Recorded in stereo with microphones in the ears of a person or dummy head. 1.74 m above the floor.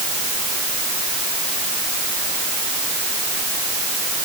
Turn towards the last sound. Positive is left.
No sound to turn to.